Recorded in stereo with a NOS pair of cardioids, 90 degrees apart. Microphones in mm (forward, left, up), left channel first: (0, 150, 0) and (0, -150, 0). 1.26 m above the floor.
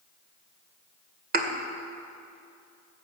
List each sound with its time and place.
1.3 s a thud: 35° right, 2 m